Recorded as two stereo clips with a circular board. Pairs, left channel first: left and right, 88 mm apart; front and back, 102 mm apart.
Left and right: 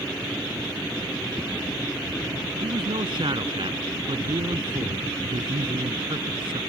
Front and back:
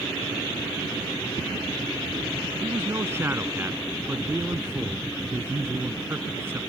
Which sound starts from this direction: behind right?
A man speaking, at 2.6 s.